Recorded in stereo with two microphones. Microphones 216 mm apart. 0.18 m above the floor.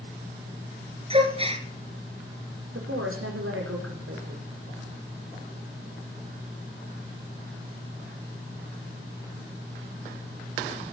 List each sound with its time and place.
1.1 s a gasp: 25° right (ahead or behind), 2.5 m
2.7 s a woman speaking: 80° right, 7 m